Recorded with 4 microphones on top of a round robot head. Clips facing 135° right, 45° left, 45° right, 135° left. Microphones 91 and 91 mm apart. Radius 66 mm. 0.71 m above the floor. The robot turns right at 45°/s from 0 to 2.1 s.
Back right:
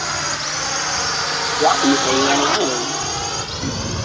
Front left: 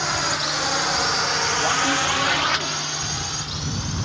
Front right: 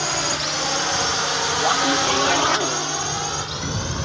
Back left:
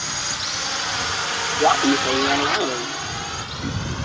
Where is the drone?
50° right; by 4.1 s 105° right.